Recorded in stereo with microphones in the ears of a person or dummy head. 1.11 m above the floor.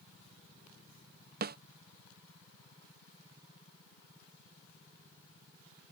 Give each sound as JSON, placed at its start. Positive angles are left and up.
{"t": 1.4, "sound": "a snare drum", "side_deg": -50}